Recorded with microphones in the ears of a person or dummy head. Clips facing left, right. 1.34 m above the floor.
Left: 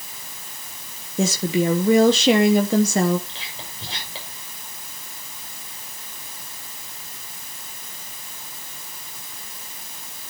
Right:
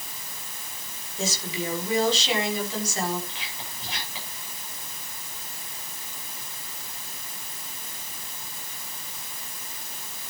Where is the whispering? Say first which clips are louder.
Left 1 dB; 25° left (ahead or behind), 6.5 m.